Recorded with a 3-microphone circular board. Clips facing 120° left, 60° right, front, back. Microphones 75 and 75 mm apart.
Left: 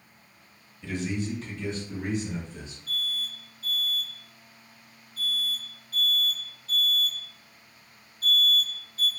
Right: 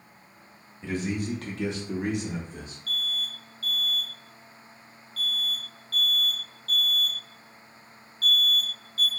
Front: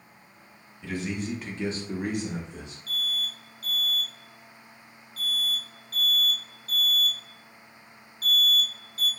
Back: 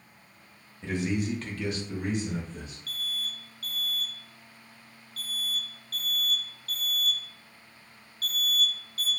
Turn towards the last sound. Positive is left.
turn(degrees=50)